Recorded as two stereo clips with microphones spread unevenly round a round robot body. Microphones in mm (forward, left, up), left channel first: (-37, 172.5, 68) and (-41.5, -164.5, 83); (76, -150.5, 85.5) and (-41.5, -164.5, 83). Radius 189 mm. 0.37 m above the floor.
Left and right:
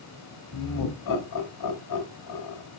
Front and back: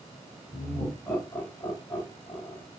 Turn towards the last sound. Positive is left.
turn(degrees=85)